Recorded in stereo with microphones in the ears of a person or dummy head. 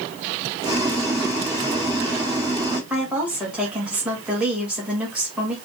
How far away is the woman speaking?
About 2 m.